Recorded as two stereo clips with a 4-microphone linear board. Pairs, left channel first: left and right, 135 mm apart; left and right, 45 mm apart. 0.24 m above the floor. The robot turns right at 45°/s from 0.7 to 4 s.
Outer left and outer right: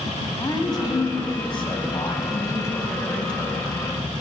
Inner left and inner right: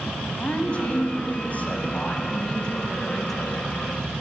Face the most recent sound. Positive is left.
turn(degrees=-155)